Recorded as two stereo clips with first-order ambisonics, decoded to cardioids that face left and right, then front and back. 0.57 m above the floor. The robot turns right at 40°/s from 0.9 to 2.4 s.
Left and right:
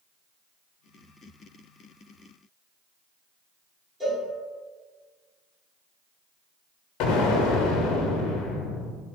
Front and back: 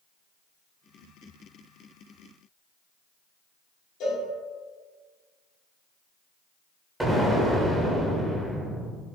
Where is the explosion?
100° left, 0.5 m.